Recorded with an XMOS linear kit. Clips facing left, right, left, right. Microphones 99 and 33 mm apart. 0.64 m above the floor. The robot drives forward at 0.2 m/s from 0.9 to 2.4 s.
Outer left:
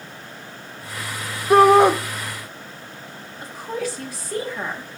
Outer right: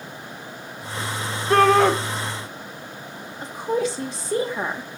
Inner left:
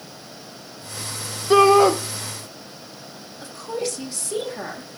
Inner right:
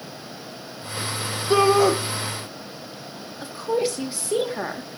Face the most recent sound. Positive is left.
turn(degrees=-25)  # may be behind; listen again after turning